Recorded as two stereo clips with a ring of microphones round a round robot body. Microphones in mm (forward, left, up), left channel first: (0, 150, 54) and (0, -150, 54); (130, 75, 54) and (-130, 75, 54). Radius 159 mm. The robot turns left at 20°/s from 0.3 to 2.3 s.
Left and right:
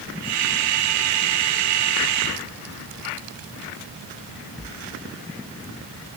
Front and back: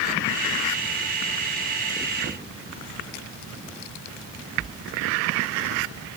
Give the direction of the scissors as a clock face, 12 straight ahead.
No scissors in this recording.